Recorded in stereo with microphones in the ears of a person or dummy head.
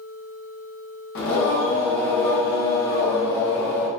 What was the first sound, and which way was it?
Singing, 70° left (ahead or behind).